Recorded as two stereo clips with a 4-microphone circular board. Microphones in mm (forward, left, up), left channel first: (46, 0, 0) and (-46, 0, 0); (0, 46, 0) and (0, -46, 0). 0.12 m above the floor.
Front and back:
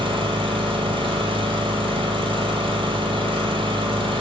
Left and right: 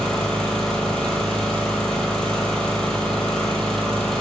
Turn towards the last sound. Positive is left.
turn(degrees=175)